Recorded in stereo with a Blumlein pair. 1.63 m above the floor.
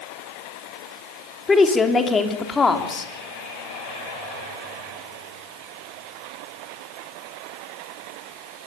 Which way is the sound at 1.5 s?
15° left.